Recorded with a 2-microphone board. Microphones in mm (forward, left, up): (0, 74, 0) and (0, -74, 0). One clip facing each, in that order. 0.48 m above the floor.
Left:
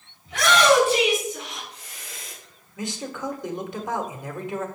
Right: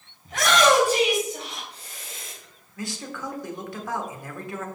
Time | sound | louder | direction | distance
0.2 | a shout | left 1 dB | 45° right (ahead or behind) | 4 m
2.8 | a man speaking | left 3 dB | 20° left (ahead or behind) | 1.1 m